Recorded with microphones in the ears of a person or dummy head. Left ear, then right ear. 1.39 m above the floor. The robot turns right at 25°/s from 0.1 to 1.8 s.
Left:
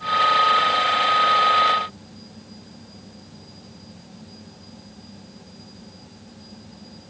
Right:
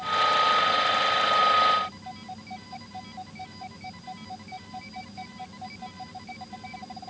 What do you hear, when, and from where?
Only background noise.